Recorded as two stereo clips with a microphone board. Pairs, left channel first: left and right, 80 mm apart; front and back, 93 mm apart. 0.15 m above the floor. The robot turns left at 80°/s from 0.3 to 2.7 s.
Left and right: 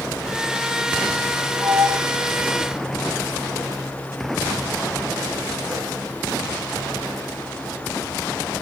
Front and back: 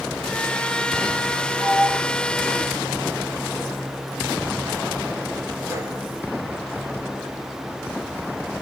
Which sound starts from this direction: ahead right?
A sliding door, at 1.6 s.